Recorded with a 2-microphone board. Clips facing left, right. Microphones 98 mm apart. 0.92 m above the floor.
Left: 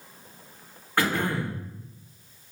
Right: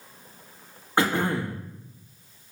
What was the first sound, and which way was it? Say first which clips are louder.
Throat clearing: right 2 dB; 25° right (ahead or behind).